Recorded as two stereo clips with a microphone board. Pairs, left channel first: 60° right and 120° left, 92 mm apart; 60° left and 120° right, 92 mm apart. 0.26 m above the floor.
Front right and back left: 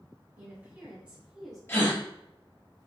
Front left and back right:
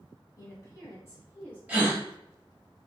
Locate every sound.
0.4 s a woman speaking: 70° left, 1.7 m; by 1.6 s 40° left, 1.4 m
1.7 s a gasp: 65° right, 0.8 m